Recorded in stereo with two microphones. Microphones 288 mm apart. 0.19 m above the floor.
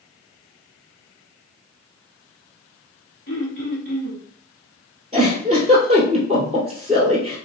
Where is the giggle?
20° right (ahead or behind), 1.5 m.